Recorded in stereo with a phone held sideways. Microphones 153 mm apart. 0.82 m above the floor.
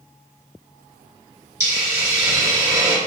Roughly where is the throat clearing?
No throat clearing in this recording.